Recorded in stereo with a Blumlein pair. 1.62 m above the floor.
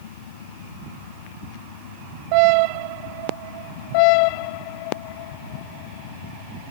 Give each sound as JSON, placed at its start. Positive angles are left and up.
{"t": 0.0, "sound": "a fan", "azimuth_deg": 60}